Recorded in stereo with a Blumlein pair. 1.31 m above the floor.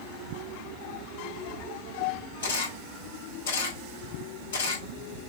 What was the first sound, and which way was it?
A camera shutter, 65° left.